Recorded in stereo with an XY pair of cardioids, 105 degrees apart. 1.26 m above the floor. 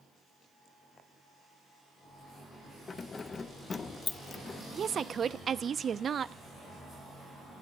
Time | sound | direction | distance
2.9 | keys jangling | 40° left | 0.7 m
4.7 | a woman speaking | 45° right | 0.7 m